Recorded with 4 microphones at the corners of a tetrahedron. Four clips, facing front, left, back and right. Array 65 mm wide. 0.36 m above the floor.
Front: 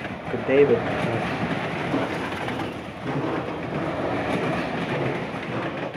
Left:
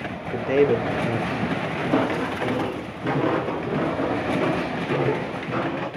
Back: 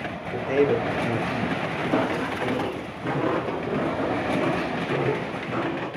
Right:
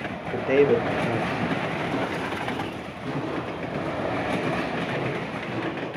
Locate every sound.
0.3 s a man speaking: 5° right, 1.3 m; by 1.7 s 175° right, 1.2 m
1.8 s footsteps: 120° left, 2 m; by 5.9 s 110° left, 5.5 m